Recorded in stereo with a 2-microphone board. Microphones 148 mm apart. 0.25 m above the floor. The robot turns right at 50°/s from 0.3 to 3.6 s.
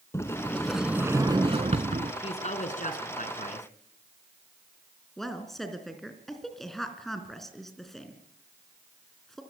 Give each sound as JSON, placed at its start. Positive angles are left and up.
{"t": 0.1, "sound": "a sliding door", "azimuth_deg": 160, "distance_m": 0.8}
{"t": 2.2, "sound": "a woman speaking", "azimuth_deg": 45, "distance_m": 3.0}
{"t": 5.2, "sound": "a woman speaking", "side_deg": 0, "distance_m": 3.0}